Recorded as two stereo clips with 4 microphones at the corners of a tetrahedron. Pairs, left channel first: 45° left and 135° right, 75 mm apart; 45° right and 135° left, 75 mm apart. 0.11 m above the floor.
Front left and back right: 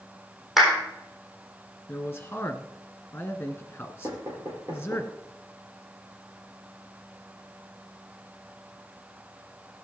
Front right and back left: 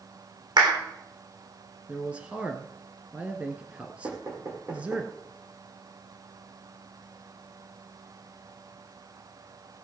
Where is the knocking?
175° left, 4.5 m.